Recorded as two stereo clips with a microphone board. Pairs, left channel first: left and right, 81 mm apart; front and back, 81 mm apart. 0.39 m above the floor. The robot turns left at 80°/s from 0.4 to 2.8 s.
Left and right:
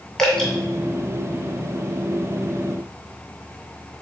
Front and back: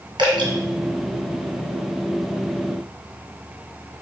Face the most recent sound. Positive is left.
turn(degrees=-20)